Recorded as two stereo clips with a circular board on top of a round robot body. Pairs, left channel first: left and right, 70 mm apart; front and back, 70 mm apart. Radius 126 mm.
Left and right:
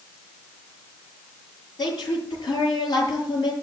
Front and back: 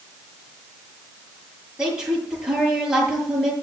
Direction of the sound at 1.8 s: 100° left.